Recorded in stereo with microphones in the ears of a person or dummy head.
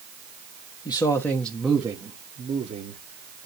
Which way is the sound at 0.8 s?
25° left (ahead or behind).